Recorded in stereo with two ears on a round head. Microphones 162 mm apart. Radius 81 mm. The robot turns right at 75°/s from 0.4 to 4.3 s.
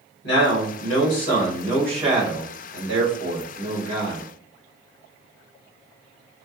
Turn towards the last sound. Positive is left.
turn(degrees=-5)